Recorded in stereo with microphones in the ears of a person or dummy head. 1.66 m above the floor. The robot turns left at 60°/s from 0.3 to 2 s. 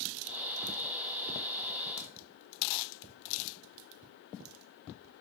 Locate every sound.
2.0 s a crack: 75° left (ahead or behind), 0.8 m; by 2.1 s 70° left (ahead or behind), 0.8 m